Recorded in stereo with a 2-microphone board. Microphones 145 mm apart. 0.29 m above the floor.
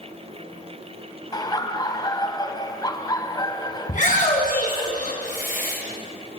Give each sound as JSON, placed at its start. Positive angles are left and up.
{"t": 1.3, "sound": "laughter", "side_deg": 25, "distance_m": 1.9}
{"t": 3.9, "sound": "a shout", "side_deg": 60, "distance_m": 3.0}